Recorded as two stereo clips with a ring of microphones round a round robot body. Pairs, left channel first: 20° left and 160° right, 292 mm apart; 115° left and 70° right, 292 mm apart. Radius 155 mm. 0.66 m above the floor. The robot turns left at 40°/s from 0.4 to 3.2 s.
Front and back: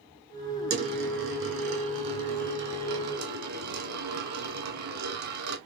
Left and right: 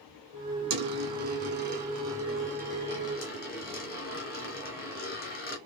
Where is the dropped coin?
90° right, 1.6 m; by 5.6 s 170° left, 1.6 m.